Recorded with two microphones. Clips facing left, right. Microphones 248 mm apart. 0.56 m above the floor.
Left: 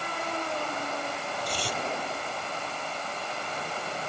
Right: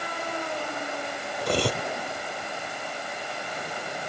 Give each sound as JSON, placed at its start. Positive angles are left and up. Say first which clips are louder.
{"t": 1.4, "sound": "cutlery clinking", "louder": "right 10 dB", "side_deg": -65}